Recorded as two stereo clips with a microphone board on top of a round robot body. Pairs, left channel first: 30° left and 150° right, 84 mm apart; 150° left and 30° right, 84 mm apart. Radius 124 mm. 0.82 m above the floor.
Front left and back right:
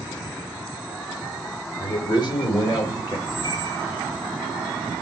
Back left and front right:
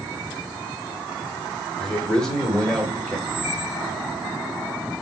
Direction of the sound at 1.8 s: 65° left.